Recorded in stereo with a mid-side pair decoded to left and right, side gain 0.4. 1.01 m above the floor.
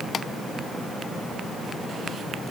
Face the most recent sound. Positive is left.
No sound to turn to.